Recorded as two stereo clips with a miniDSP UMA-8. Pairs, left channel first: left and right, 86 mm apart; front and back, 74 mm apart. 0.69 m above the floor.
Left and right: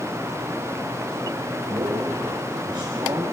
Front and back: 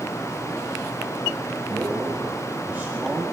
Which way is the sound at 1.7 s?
125° right.